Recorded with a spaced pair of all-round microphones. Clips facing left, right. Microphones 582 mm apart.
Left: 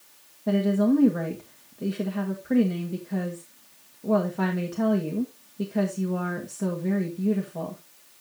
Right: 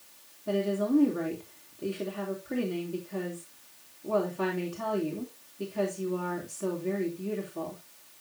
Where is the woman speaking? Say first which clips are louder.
Left 6 dB; 80° left, 2 m.